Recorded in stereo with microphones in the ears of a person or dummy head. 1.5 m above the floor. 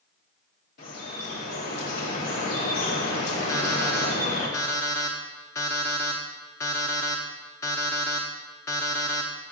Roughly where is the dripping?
Left.